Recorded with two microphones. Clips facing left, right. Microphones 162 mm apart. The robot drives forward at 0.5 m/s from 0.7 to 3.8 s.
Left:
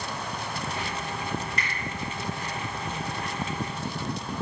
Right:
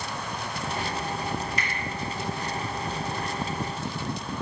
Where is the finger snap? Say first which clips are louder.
Right 1 dB; 65° left (ahead or behind), 2.5 m.